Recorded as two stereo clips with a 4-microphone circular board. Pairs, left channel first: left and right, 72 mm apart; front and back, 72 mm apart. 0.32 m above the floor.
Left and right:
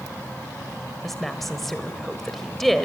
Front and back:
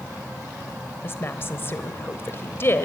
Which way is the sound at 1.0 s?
5° left.